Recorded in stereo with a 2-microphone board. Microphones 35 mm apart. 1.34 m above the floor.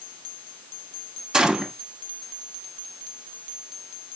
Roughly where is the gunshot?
Right.